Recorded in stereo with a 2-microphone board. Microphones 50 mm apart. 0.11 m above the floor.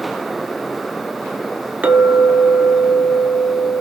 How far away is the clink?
About 0.8 m.